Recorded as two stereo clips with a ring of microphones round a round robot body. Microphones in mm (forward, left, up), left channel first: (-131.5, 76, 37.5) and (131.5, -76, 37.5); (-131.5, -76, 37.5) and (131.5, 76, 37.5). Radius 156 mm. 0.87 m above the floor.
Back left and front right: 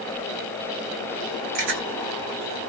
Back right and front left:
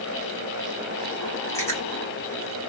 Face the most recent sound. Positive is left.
turn(degrees=-70)